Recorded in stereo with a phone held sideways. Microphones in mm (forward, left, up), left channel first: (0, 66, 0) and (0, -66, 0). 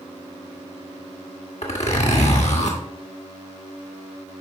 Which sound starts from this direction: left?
A zipper, at 1.6 s.